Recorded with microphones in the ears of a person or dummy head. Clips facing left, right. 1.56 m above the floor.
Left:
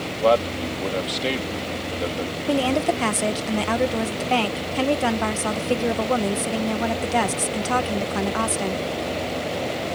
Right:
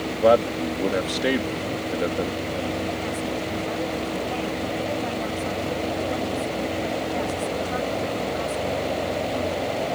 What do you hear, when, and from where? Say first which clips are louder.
0.2 s a man speaking: right 1 dB; 20° right (ahead or behind)
2.5 s a woman speaking: left 6 dB; 80° left